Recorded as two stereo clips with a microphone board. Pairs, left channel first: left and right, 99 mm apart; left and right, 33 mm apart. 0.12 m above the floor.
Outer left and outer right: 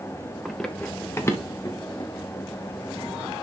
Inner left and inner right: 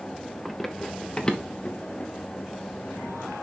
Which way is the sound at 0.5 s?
Centre (ahead or behind).